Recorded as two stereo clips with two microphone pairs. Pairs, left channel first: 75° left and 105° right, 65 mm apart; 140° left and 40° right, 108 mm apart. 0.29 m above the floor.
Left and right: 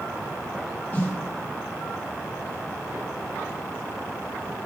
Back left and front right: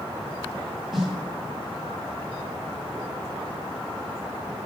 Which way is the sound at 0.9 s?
55° left.